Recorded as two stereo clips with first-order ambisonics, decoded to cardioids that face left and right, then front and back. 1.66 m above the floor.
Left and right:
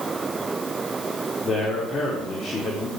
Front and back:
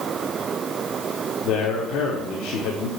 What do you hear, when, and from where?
1.4 s a man speaking: 20° left, 1.2 m